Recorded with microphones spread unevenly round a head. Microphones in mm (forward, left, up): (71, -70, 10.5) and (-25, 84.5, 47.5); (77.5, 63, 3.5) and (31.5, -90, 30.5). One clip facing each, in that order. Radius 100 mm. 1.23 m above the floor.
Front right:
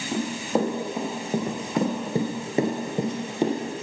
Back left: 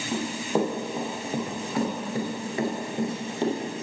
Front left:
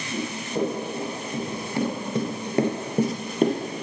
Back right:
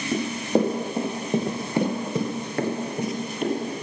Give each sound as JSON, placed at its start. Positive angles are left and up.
{"t": 0.1, "sound": "running footsteps", "azimuth_deg": -150, "distance_m": 3.0}